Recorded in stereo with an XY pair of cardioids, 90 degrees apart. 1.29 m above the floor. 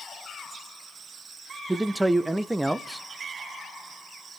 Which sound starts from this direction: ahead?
A man speaking, at 1.7 s.